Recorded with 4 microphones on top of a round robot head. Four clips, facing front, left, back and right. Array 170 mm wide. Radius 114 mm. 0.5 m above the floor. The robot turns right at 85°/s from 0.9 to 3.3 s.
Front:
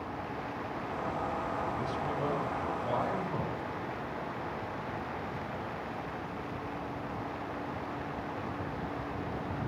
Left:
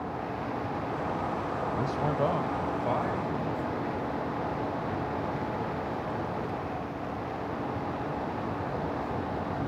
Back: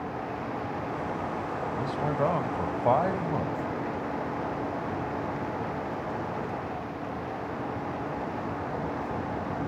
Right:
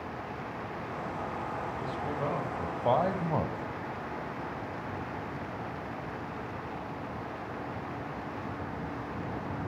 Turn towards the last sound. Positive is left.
turn(degrees=-120)